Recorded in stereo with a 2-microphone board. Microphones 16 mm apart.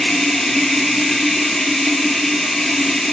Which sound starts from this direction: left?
Running water, at 0.0 s.